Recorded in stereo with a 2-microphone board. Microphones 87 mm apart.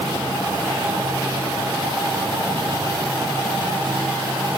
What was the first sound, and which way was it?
Only background noise.